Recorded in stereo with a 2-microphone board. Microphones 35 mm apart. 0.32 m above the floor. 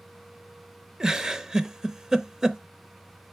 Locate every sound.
1.0 s a giggle: 15° right (ahead or behind), 0.6 m